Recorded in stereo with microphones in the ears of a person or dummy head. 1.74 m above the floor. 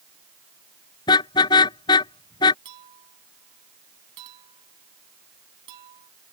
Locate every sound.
1.1 s a car horn: 25° left (ahead or behind)
2.6 s a clink: 30° right (ahead or behind)